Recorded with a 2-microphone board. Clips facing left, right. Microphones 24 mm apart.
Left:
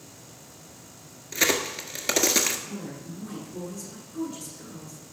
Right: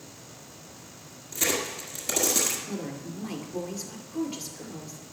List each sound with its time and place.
1.3 s a crack: 45° left (ahead or behind), 1.4 m
2.7 s a woman speaking: 50° right (ahead or behind), 2.5 m